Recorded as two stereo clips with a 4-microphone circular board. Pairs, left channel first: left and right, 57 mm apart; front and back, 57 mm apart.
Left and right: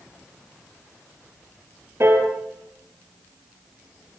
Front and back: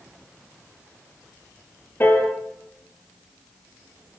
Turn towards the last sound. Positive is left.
turn(degrees=-50)